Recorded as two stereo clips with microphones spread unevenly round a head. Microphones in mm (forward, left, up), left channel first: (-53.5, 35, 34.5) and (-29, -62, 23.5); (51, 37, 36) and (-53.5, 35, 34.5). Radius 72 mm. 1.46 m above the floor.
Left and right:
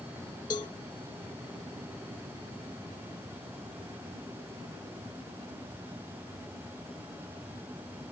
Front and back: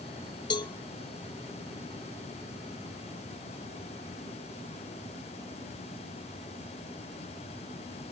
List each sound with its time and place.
0.5 s a cowbell: 45° left